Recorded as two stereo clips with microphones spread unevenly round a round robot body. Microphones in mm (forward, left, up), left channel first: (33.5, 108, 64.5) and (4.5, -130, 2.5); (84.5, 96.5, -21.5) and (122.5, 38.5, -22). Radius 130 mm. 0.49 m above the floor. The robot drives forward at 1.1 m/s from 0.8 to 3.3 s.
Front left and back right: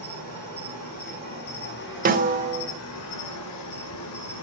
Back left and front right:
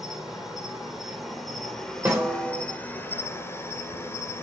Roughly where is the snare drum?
Behind right.